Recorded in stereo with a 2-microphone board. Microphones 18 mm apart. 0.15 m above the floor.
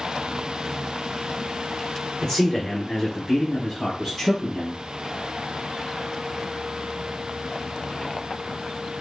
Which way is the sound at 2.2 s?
45° left (ahead or behind).